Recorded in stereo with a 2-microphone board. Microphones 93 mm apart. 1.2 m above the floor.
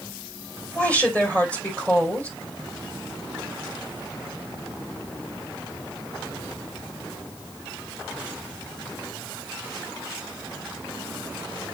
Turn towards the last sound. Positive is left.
turn(degrees=15)  # may be behind; listen again after turning